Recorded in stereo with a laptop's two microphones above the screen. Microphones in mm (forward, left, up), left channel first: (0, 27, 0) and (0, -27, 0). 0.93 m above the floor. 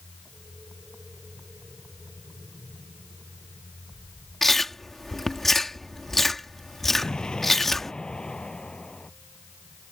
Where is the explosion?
15° left (ahead or behind).